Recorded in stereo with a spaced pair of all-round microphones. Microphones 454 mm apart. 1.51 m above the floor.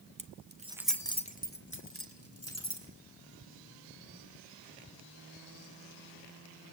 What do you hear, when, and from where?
0.2 s keys jangling: 45° right (ahead or behind), 0.9 m; by 2.9 s 35° left (ahead or behind), 3.5 m